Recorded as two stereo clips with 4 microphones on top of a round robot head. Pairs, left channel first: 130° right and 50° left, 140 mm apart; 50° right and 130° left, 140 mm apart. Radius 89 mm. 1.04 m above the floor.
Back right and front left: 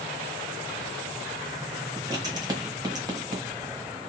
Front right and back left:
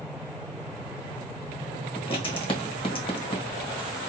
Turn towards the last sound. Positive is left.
turn(degrees=-5)